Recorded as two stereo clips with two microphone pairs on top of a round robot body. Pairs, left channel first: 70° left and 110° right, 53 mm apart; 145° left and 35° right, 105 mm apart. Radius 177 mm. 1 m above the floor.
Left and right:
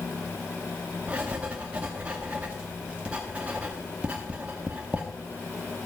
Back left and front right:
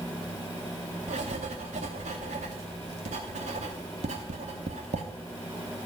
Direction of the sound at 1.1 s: 40° right.